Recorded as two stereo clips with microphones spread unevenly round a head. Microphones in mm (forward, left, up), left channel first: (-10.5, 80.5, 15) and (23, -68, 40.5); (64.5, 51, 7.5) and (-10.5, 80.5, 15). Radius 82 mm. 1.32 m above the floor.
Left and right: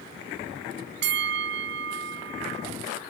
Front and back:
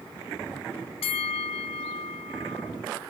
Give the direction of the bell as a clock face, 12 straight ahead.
2 o'clock.